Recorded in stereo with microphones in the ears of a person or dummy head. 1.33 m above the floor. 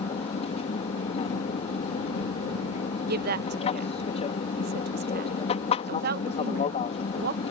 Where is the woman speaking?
60° right (ahead or behind).